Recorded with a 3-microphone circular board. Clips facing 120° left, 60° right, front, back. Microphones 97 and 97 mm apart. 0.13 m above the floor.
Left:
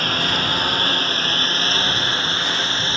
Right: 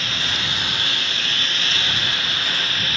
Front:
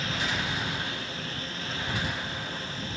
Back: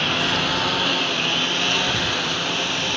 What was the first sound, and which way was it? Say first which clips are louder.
A lawn mower: left 6 dB, back 8 dB; 160° left.